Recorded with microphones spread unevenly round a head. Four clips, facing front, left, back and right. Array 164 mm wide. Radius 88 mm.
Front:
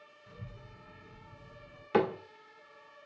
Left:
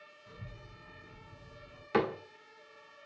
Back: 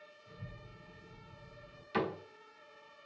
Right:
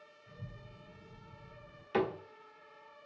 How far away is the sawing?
I don't hear sawing.